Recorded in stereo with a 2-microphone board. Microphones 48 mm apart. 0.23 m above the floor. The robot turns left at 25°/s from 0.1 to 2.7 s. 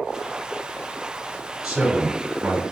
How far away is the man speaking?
About 1.1 m.